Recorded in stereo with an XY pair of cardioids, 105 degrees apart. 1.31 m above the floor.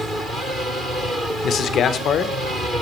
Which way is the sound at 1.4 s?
65° left.